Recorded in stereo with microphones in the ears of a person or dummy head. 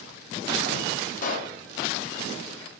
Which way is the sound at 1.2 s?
50° left (ahead or behind).